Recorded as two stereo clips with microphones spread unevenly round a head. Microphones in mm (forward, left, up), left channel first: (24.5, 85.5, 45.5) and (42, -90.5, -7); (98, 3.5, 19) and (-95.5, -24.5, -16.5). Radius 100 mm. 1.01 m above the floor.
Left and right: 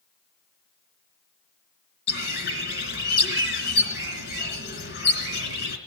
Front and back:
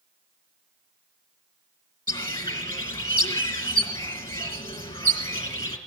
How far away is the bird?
About 2.5 m.